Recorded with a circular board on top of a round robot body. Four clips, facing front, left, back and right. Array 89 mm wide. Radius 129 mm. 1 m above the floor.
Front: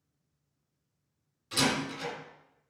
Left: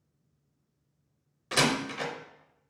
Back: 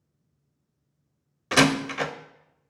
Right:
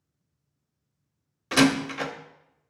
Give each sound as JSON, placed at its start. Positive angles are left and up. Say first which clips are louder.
{"t": 1.5, "sound": "a door slam", "louder": "right 7 dB, back 9 dB", "azimuth_deg": -160, "distance_m": 0.6}